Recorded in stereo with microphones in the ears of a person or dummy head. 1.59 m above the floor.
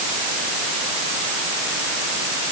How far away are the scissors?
No scissors in this recording.